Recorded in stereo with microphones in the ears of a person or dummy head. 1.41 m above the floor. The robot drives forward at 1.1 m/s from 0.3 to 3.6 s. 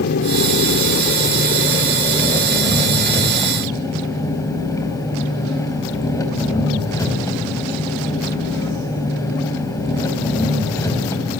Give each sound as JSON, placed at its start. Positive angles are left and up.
{"t": 0.0, "sound": "an engine running", "side_deg": 65, "distance_m": 2.0}